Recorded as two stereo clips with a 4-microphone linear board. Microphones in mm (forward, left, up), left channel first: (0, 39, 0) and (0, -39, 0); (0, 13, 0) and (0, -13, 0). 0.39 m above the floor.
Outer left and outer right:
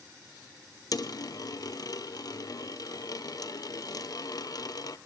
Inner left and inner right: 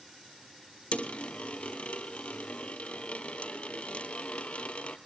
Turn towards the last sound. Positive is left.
turn(degrees=55)  # may be behind; listen again after turning